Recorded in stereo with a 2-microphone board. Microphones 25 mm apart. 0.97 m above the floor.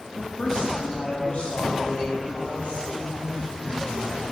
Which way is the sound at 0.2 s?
30° left (ahead or behind).